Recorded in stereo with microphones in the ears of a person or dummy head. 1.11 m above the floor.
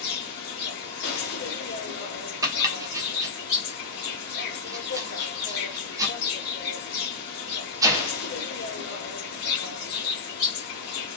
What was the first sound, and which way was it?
An insect, 60° left (ahead or behind).